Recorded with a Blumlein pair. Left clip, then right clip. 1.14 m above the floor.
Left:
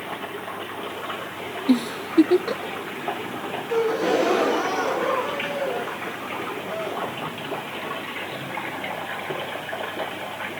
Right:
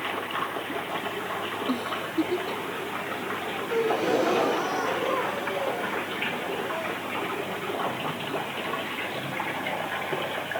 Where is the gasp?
10° left.